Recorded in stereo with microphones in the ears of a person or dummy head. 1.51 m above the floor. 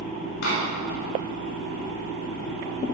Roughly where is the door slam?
Left.